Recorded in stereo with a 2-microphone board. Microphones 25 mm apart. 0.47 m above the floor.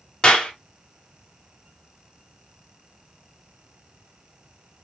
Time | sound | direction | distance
0.2 | a clap | 40° left (ahead or behind) | 1.3 m